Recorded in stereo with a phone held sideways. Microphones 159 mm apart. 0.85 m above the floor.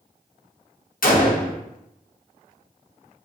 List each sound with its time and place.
1.0 s a gunshot: 60° left (ahead or behind), 0.6 m